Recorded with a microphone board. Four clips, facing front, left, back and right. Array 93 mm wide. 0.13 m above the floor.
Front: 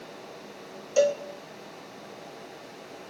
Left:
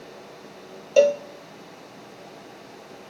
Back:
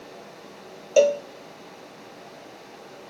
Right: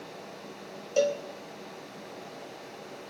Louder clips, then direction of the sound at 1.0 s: Left 9 dB, back 5 dB; 140° left.